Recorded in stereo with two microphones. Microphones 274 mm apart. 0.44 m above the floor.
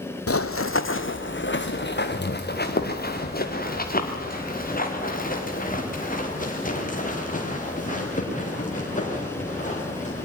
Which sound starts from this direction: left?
Running footsteps, at 0.3 s.